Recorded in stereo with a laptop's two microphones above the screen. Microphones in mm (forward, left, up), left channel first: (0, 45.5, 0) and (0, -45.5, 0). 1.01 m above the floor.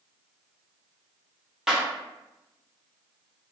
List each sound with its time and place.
1.7 s a clap: 5° right (ahead or behind), 0.6 m